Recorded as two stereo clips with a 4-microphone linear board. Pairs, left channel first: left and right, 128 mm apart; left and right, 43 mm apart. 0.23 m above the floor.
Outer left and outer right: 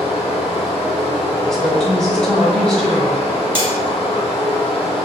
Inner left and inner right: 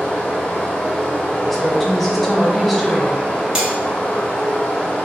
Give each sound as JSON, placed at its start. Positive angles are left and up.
{"t": 0.0, "sound": "running water", "side_deg": 55, "distance_m": 1.3}
{"t": 1.4, "sound": "a woman speaking", "side_deg": 5, "distance_m": 1.0}
{"t": 3.5, "sound": "cutlery clinking", "side_deg": -15, "distance_m": 0.8}